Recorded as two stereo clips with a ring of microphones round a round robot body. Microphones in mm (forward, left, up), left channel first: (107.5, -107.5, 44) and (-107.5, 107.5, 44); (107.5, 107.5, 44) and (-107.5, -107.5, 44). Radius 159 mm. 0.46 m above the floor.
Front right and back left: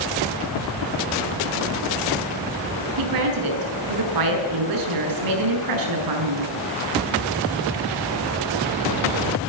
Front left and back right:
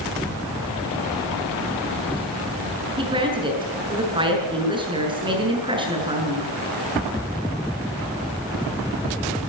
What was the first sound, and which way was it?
A woman speaking, 150° left.